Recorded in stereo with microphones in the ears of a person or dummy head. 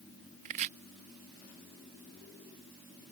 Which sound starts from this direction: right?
Chopping, at 0.5 s.